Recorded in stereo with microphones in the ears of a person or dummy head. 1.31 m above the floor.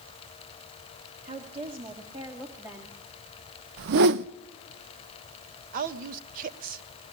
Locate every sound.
1.2 s a woman speaking: 40° right (ahead or behind), 2.5 m; by 3.0 s 10° right (ahead or behind), 2.5 m
3.8 s a whoosh: 55° right (ahead or behind), 0.6 m
5.7 s a woman speaking: 50° right (ahead or behind), 1.4 m